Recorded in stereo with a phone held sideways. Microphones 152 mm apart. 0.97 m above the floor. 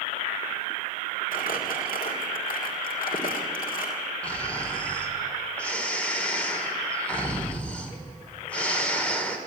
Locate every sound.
1.3 s crumpling: 70° left (ahead or behind), 3 m
4.2 s snoring: 10° left (ahead or behind), 2.5 m